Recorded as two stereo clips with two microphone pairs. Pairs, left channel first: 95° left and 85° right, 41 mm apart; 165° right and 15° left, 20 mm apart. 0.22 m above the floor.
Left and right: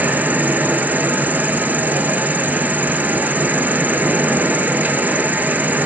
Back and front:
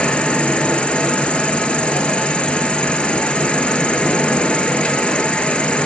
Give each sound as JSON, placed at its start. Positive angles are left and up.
{"t": 0.0, "sound": "an insect", "azimuth_deg": -135, "distance_m": 1.0}